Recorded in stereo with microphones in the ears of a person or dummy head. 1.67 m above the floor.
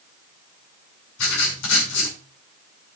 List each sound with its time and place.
1.2 s writing: 75° left (ahead or behind), 5.5 m